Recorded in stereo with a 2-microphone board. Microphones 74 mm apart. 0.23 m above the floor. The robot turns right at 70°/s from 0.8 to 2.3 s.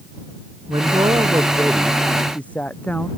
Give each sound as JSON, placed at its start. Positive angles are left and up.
{"t": 0.7, "sound": "a man speaking", "azimuth_deg": -85}